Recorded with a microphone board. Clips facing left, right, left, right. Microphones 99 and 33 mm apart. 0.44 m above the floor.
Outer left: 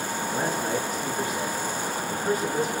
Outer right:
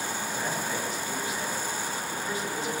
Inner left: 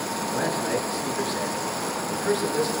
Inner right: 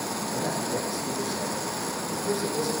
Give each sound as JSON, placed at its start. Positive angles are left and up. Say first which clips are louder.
{"t": 0.3, "sound": "a man speaking", "louder": "outer left 7 dB, inner left 4 dB", "side_deg": 50, "distance_m": 8.0}